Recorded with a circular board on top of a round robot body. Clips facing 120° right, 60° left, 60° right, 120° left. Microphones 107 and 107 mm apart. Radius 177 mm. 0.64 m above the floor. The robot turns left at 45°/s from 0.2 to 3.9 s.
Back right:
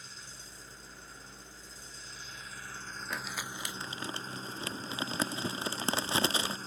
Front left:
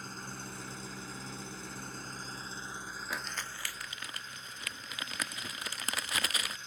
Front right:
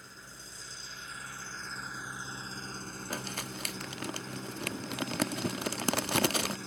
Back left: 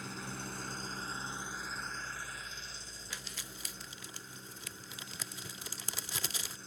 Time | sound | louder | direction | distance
0.0 | an engine running | front left 9 dB, back left 9 dB | 100° left | ?
3.1 | crumpling | back right 2 dB, front right 10 dB | 25° right | ?